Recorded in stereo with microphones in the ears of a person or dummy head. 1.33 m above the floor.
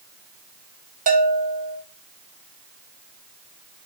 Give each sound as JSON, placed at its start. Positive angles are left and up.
{"t": 1.1, "sound": "a bell", "side_deg": -40, "distance_m": 0.8}